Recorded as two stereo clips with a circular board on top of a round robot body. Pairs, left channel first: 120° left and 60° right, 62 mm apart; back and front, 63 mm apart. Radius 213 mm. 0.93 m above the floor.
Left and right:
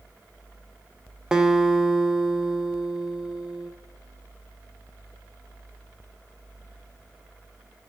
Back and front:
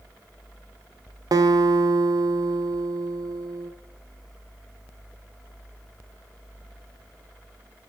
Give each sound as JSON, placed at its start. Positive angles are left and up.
{"t": 1.3, "sound": "a guitar", "azimuth_deg": 20, "distance_m": 0.6}